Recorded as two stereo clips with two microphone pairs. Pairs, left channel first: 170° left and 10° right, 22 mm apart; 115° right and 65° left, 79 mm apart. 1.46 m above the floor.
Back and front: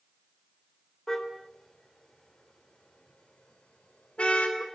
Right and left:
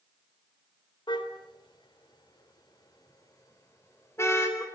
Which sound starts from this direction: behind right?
A car horn, at 1.1 s.